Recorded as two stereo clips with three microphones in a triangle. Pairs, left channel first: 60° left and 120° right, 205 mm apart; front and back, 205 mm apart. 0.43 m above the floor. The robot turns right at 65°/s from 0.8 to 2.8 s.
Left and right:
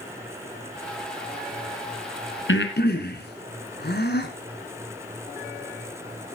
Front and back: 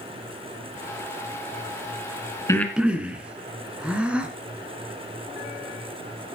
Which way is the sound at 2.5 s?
75° left.